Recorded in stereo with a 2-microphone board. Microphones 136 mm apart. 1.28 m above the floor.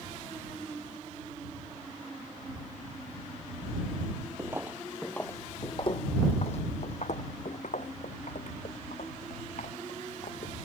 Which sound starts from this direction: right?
Footsteps, at 4.4 s.